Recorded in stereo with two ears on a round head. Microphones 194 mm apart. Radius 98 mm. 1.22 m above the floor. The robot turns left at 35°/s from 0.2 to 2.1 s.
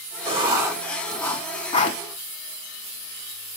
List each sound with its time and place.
0.2 s writing: 25° right (ahead or behind), 3 m; by 2.0 s 35° left (ahead or behind), 3 m